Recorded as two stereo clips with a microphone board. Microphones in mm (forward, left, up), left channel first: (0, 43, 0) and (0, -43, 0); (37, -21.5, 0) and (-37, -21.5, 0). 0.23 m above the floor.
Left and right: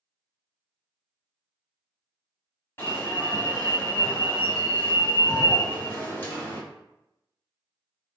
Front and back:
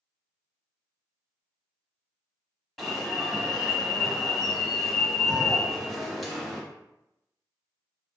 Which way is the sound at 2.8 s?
85° left.